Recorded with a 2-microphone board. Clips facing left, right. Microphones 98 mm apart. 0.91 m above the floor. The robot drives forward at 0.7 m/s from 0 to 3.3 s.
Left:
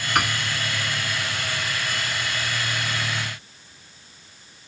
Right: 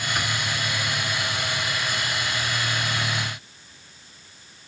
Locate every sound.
0.1 s a piano: 70° left (ahead or behind)